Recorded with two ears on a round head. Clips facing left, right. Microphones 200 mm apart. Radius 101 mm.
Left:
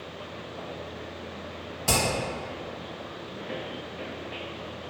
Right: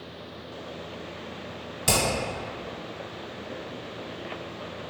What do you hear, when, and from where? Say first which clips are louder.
1.9 s hammering: right 1 dB; 45° right (ahead or behind), 1.6 m